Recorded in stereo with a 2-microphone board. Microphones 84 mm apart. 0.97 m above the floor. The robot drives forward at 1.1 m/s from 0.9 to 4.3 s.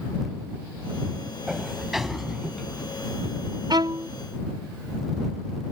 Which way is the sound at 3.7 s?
60° right (ahead or behind).